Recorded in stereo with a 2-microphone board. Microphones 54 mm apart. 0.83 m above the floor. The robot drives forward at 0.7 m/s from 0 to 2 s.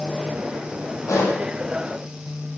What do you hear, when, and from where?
1.1 s a pop: 85° left, 7.5 m